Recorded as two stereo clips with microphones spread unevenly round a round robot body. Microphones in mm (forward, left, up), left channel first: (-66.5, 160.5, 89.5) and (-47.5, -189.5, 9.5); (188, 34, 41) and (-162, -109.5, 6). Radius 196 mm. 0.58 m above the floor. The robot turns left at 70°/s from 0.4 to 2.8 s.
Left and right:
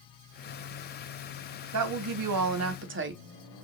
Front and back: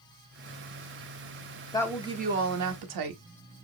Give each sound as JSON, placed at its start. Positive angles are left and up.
{"t": 1.7, "sound": "a woman speaking", "azimuth_deg": -60, "distance_m": 1.1}